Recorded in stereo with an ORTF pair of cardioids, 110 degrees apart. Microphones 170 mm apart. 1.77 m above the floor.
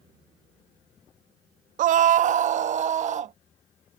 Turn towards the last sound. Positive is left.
turn(degrees=-45)